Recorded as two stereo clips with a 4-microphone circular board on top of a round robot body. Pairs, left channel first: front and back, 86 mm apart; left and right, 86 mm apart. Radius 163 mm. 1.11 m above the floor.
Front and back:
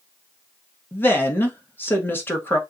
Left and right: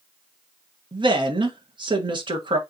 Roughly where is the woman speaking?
Ahead right.